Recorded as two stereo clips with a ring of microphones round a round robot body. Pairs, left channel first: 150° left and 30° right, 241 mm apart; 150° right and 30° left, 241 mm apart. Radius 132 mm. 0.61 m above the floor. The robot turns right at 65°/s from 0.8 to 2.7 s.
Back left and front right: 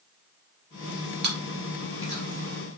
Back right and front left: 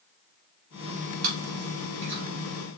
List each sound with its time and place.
1.2 s chewing: 15° left, 3 m; by 2.2 s 80° left, 3 m